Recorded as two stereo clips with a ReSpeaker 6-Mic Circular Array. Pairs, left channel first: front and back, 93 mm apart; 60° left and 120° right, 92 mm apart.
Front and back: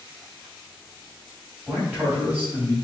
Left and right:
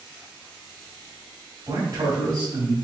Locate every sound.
1.7 s a man speaking: 120° right, 2 m